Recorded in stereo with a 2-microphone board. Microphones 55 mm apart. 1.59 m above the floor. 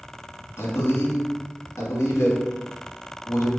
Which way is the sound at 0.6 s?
55° left (ahead or behind).